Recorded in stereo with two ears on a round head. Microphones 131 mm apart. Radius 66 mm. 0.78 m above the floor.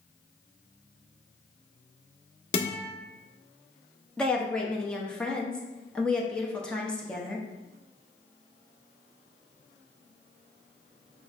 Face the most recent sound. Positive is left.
turn(degrees=5)  # may be behind; listen again after turning